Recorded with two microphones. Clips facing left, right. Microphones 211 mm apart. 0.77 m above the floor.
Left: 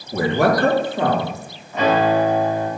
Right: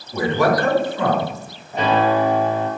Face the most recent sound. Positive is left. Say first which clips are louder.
# left 1 dB
turn(degrees=-35)  # may be behind; listen again after turning